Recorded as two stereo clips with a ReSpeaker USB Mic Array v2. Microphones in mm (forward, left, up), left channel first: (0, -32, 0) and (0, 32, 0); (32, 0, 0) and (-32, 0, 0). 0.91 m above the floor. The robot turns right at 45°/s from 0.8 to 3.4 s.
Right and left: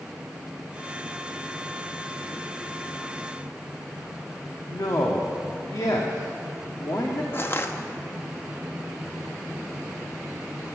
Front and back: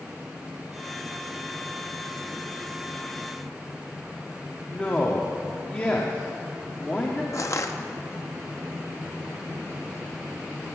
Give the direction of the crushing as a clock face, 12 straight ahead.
1 o'clock.